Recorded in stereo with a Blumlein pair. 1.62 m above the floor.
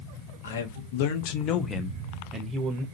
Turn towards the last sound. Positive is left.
turn(degrees=-30)